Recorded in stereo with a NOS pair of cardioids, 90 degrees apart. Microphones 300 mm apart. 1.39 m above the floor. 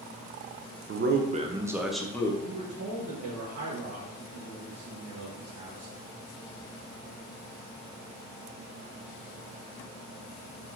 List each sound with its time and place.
0.9 s a man speaking: 40° right, 0.9 m; by 2.3 s 10° left, 1.1 m
2.4 s a man speaking: 60° right, 1.7 m